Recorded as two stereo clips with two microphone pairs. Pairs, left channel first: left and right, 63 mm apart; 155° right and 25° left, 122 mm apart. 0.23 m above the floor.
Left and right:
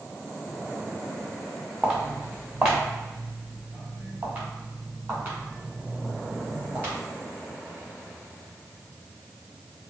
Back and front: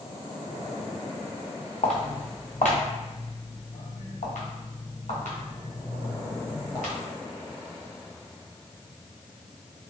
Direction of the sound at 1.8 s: 160° right.